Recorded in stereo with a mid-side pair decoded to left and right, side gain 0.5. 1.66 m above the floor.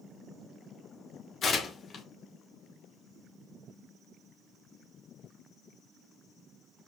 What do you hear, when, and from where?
1.4 s tearing paper: 40° left, 1.0 m